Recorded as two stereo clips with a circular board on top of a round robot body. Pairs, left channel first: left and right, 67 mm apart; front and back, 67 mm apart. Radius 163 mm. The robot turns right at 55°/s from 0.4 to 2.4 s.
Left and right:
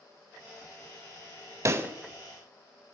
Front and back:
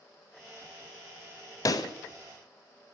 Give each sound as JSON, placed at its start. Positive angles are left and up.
{"t": 1.6, "sound": "a pop", "azimuth_deg": -40, "distance_m": 0.8}